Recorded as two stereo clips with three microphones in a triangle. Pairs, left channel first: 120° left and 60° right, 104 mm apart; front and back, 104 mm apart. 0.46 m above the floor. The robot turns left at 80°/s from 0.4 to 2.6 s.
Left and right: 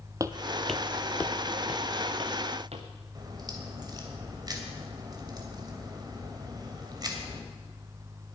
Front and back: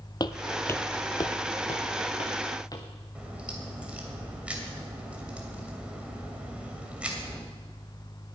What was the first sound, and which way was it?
Footsteps, 20° right.